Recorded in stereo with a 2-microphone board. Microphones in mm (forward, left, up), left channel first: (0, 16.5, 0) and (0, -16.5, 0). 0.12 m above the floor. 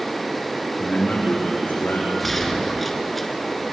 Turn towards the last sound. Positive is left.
turn(degrees=5)  # may be behind; listen again after turning